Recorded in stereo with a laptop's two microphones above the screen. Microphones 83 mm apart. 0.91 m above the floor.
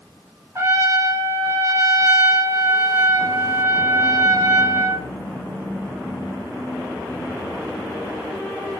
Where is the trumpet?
30° right (ahead or behind), 0.7 m.